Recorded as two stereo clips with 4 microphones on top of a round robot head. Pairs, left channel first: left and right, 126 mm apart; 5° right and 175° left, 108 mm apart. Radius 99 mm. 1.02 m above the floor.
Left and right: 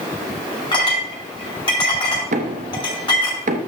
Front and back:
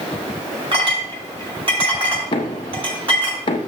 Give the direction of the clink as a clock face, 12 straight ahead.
7 o'clock.